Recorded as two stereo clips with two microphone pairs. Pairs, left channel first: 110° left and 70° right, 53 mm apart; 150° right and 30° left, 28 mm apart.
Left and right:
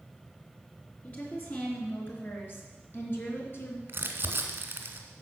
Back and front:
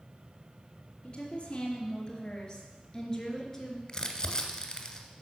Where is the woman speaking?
160° left, 3.5 m; by 3.8 s 130° left, 2.5 m.